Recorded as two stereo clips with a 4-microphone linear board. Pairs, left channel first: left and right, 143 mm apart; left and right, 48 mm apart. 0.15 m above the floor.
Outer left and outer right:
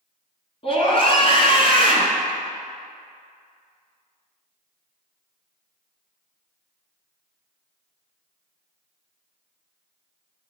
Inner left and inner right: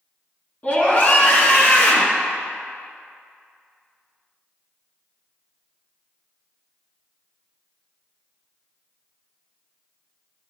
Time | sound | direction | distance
0.6 | a scream | 40° left (ahead or behind) | 1.4 m